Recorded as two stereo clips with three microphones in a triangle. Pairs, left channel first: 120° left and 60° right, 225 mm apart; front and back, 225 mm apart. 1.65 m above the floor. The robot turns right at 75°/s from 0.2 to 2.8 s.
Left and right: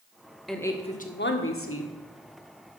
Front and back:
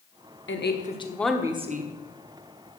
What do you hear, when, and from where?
0.5 s a woman speaking: 30° left, 1.2 m; by 1.9 s 135° left, 1.2 m